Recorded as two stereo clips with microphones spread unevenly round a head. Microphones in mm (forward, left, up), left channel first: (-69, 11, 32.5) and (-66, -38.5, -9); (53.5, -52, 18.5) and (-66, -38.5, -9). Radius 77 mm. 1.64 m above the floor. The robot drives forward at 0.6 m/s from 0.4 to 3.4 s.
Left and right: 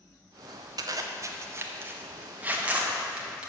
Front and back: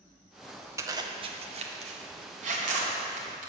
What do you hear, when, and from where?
0.8 s a zipper: 115° right, 0.7 m; by 3.5 s 170° right, 1.8 m